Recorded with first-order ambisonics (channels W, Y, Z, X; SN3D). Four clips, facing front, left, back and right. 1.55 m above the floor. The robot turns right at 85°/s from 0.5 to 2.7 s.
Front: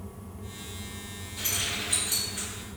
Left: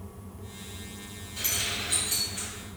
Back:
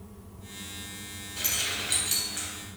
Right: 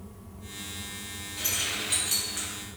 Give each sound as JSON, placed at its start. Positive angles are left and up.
{"t": 1.4, "sound": "keys jangling", "azimuth_deg": 140, "distance_m": 1.2}